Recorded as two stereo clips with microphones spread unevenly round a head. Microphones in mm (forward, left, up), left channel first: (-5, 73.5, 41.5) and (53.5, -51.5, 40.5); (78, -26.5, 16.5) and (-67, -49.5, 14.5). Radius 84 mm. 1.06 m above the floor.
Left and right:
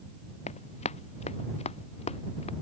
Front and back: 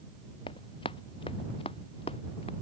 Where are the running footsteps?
75° left; by 2.5 s 70° left.